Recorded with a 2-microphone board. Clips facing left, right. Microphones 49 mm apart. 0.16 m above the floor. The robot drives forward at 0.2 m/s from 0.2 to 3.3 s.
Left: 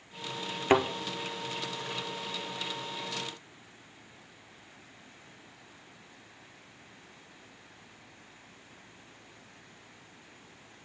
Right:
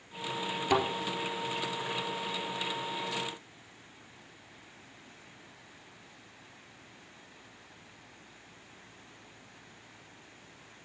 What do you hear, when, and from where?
0.7 s a thud: 45° left (ahead or behind), 0.7 m; by 0.8 s 40° left (ahead or behind), 0.7 m